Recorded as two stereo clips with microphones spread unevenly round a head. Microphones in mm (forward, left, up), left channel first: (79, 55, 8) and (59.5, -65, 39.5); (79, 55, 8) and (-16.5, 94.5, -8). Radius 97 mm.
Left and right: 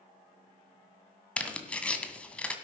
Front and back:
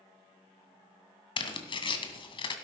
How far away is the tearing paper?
About 2 m.